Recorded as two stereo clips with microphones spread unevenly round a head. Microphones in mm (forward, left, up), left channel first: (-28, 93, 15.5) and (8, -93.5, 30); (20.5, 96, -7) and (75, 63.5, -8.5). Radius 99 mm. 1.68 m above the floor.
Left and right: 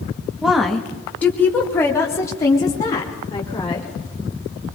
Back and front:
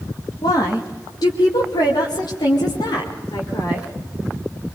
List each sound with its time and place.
0.4 s a woman speaking: 165° right, 2.5 m; by 3.9 s 170° left, 5.5 m